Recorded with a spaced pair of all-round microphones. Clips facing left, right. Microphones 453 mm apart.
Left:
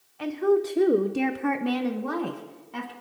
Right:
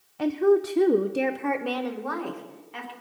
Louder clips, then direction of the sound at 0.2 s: Right 2 dB; 60° right (ahead or behind).